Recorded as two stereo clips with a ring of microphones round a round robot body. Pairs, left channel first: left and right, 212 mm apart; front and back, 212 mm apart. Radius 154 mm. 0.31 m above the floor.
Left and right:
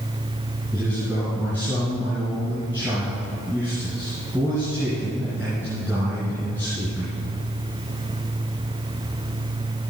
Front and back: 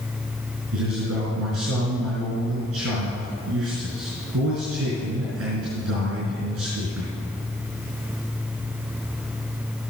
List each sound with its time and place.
0.7 s a man speaking: 175° left, 4 m